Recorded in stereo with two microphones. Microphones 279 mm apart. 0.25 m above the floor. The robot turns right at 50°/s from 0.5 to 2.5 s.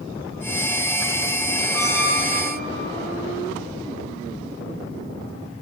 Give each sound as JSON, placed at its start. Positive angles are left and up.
{"t": 1.7, "sound": "a squeak", "azimuth_deg": -130, "distance_m": 3.0}